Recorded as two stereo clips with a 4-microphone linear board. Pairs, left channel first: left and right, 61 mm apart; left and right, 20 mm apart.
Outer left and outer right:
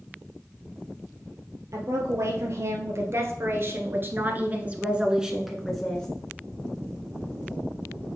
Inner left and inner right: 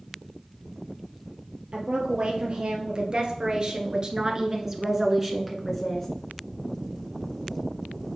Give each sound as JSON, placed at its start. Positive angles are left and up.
{"t": 1.7, "sound": "a woman speaking", "side_deg": -60, "distance_m": 2.0}